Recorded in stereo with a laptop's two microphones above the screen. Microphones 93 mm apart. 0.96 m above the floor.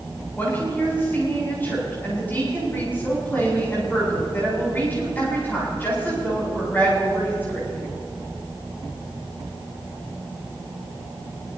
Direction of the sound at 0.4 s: 20° left (ahead or behind).